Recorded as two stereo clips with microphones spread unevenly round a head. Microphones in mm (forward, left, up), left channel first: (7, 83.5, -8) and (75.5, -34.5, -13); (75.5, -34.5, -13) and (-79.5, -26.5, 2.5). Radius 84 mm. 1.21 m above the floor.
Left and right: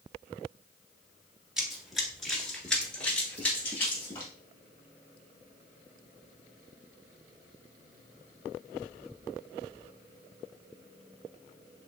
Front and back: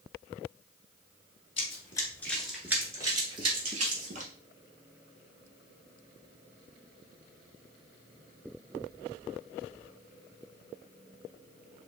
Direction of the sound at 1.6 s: 25° left.